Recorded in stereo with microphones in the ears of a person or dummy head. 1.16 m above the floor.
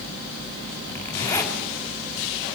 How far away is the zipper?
About 4 m.